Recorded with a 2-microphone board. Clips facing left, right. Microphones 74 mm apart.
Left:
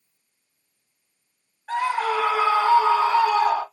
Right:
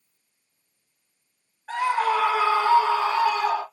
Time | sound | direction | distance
1.7 | a scream | 5° right (ahead or behind) | 2.5 m